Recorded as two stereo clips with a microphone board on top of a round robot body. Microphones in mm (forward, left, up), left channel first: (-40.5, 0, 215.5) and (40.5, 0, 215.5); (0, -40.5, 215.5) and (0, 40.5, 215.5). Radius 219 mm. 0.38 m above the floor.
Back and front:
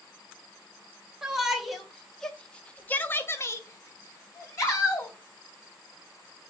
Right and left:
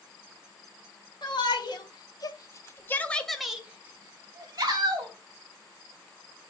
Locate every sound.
1.2 s a shout: 85° right, 1.4 m; by 5.1 s 125° left, 1.4 m